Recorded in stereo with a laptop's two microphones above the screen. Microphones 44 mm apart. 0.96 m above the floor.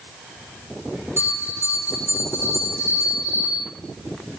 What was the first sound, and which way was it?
A bell, 60° right (ahead or behind).